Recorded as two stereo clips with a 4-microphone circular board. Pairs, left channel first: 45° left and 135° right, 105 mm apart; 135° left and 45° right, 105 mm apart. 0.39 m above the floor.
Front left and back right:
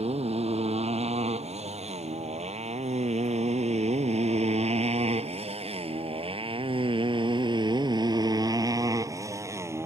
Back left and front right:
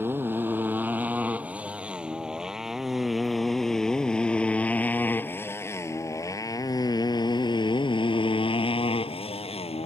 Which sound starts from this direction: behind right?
A motorcycle, at 0.0 s.